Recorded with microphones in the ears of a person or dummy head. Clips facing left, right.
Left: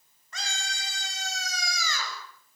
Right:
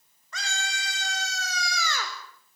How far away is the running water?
I don't hear running water.